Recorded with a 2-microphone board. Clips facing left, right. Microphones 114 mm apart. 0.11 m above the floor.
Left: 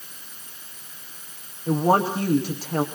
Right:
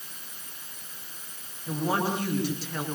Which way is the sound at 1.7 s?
40° left (ahead or behind).